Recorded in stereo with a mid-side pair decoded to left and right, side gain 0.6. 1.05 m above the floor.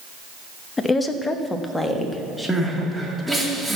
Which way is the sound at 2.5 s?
Straight ahead.